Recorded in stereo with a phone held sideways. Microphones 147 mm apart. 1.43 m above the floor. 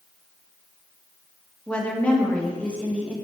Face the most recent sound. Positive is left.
turn(degrees=10)  # may be behind; listen again after turning